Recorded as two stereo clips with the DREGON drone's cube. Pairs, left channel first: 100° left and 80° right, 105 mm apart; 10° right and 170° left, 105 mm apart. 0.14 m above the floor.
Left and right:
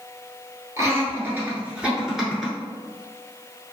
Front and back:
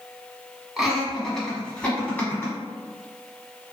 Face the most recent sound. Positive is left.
turn(degrees=25)